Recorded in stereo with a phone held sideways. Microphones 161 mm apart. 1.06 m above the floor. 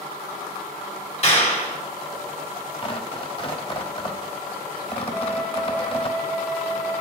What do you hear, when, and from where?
1.2 s a clap: 45° left (ahead or behind), 3 m
2.8 s tearing paper: 35° left (ahead or behind), 1.0 m
5.1 s a flute: 10° left (ahead or behind), 4.5 m